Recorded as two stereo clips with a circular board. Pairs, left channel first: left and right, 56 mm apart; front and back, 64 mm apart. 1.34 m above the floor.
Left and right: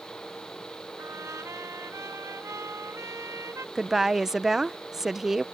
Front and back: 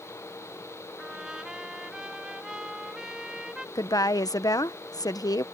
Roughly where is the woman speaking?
Ahead.